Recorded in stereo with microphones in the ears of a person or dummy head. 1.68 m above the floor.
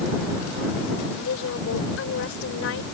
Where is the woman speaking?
80° left.